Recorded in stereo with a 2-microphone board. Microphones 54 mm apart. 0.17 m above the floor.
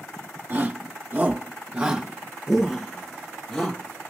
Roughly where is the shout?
Right.